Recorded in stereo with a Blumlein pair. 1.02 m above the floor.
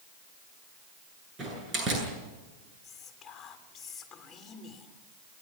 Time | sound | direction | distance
1.4 | a door slam | 25° right | 9.5 m
2.8 | whispering | 20° left | 3 m